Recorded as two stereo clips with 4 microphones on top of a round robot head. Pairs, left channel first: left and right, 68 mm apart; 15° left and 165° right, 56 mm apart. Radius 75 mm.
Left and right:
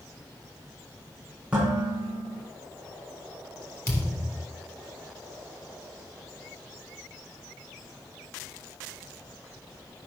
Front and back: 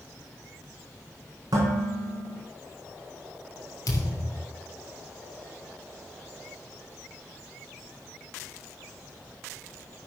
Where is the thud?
40° left, 2.5 m.